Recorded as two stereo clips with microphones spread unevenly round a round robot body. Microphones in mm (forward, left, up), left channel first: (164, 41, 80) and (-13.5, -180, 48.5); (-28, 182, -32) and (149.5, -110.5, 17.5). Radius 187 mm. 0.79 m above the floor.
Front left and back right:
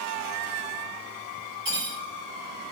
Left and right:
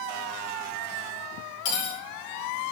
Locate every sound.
1.6 s cutlery clinking: 125° left, 1.3 m